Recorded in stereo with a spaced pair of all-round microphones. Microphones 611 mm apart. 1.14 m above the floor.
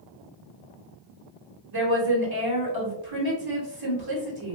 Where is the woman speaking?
40° right (ahead or behind), 1.0 m.